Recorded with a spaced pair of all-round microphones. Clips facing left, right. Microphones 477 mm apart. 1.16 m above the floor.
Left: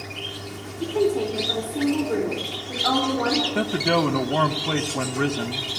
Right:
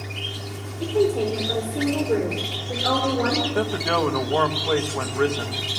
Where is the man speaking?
50° left (ahead or behind), 1.2 m.